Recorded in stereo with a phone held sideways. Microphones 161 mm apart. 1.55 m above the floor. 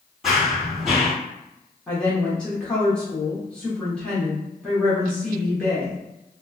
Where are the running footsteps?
Centre (ahead or behind), 1.9 m.